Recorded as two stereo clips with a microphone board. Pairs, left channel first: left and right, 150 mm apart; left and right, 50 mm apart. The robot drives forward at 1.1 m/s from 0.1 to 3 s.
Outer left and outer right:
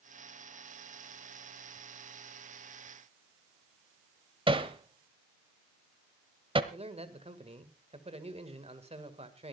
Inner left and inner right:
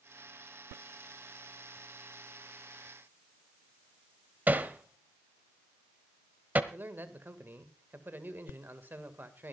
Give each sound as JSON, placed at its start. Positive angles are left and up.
{"t": 4.5, "sound": "hammering", "side_deg": -35, "distance_m": 1.1}
{"t": 6.7, "sound": "a man speaking", "side_deg": -45, "distance_m": 2.0}